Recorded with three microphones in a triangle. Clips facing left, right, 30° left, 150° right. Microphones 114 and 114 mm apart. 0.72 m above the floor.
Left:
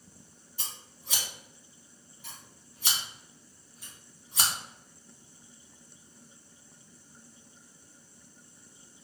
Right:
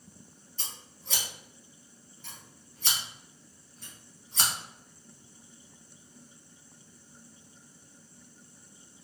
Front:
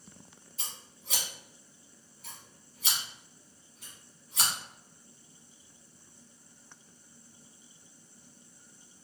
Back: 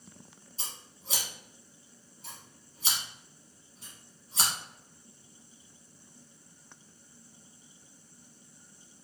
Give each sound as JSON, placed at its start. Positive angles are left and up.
{"t": 0.6, "sound": "scissors", "azimuth_deg": 165, "distance_m": 0.8}